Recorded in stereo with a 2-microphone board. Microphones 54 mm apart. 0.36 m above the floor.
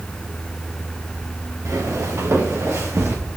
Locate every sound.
1.6 s footsteps: 65° right (ahead or behind), 2.5 m; by 3.2 s 50° right (ahead or behind), 3 m